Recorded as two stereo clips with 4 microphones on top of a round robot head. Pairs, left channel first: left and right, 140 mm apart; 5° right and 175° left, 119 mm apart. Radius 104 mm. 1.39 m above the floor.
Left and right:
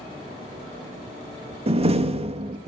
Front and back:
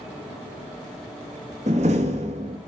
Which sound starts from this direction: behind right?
A door slam, at 1.7 s.